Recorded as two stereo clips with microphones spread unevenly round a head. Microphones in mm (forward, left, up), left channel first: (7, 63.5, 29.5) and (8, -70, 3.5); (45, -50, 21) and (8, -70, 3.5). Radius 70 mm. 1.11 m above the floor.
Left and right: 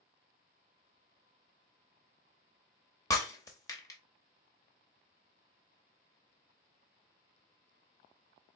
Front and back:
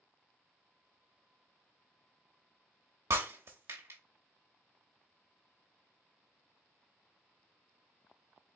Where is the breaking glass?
145° left, 0.7 m.